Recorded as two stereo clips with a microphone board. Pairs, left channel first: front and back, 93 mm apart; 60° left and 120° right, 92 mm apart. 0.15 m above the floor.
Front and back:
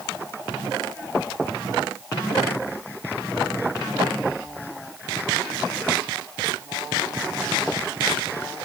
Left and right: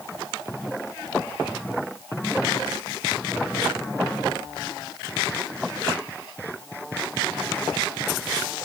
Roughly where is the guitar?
No guitar in this recording.